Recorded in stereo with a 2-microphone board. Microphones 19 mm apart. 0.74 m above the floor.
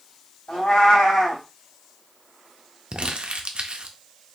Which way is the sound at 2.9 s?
70° right (ahead or behind).